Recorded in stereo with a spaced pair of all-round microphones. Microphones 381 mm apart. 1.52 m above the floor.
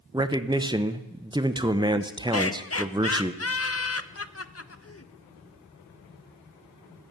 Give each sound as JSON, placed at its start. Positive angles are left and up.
{"t": 0.1, "sound": "a man speaking", "side_deg": -10, "distance_m": 0.7}
{"t": 2.3, "sound": "laughter", "side_deg": 40, "distance_m": 0.6}